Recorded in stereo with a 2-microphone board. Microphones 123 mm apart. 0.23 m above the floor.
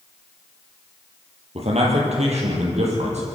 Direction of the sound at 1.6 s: 60° right (ahead or behind).